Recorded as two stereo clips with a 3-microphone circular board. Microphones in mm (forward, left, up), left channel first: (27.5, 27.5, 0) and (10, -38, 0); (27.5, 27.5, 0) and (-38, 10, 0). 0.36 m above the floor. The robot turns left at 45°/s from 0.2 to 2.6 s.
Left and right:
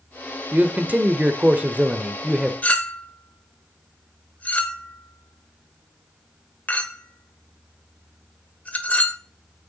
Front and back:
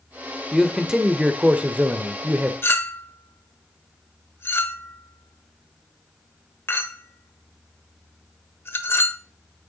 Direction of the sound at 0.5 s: 80° right.